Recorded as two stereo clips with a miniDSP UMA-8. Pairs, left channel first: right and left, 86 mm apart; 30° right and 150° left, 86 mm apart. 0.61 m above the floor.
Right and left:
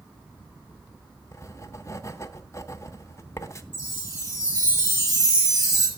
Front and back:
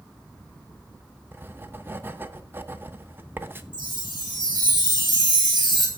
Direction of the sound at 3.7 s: 120° left.